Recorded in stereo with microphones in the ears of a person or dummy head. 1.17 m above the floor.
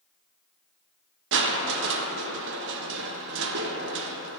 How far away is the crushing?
About 0.5 m.